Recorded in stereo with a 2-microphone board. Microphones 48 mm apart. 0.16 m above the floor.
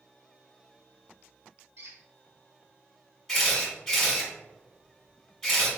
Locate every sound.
1.8 s a squeak: 70° right (ahead or behind), 1.5 m
3.3 s a camera shutter: 5° left (ahead or behind), 1.6 m